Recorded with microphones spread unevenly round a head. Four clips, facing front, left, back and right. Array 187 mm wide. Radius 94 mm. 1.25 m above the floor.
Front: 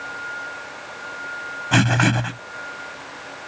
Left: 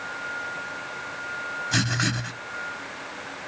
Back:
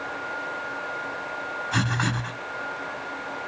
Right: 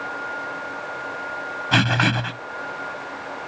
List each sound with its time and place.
1.7 s writing: 35° right